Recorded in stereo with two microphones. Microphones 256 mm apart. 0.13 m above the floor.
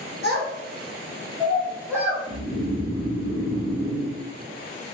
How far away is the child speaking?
About 1.4 m.